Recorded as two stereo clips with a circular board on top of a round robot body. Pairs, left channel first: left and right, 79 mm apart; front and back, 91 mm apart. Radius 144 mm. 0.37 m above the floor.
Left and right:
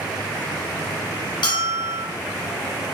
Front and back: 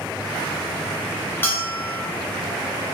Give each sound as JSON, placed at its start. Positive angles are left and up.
{"t": 1.4, "sound": "a bell", "azimuth_deg": 70, "distance_m": 0.8}